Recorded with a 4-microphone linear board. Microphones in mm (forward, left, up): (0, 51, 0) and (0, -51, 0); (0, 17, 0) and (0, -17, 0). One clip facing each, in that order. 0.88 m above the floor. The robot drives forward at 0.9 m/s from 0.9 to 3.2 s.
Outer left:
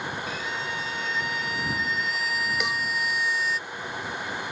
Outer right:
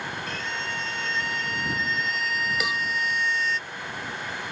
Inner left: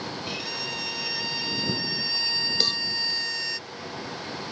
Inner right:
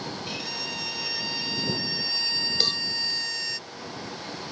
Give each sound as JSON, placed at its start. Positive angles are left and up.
{"t": 0.3, "sound": "a violin", "side_deg": 5}
{"t": 2.6, "sound": "a cowbell", "side_deg": -5}